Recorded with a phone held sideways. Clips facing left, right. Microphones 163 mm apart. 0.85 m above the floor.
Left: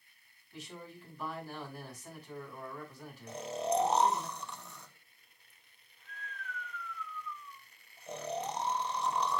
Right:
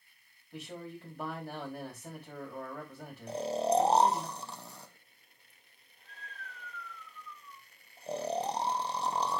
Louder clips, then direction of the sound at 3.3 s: Right 4 dB; 35° right (ahead or behind).